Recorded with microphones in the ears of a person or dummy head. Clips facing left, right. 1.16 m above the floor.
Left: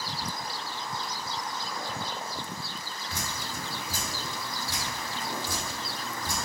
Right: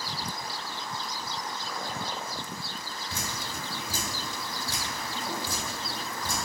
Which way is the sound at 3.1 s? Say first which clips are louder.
Even; 65° right (ahead or behind).